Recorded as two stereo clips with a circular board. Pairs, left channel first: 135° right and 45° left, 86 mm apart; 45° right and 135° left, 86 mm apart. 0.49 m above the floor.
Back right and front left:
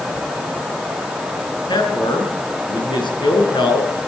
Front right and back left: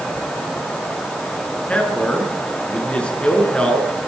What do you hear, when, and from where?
1.7 s a man speaking: 120° right, 7 m